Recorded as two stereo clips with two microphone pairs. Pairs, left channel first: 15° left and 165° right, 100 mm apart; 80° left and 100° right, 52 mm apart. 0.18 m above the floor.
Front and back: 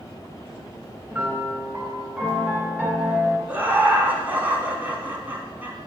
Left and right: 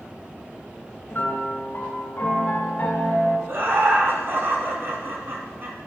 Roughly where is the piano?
Behind left.